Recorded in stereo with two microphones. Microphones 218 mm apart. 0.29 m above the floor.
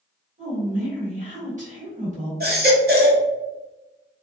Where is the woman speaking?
35° right (ahead or behind), 1.7 m.